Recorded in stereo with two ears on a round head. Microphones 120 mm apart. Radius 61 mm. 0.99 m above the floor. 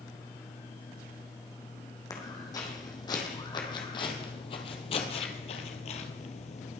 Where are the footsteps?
30° left (ahead or behind), 3 m; by 6.8 s 55° left (ahead or behind), 1.5 m.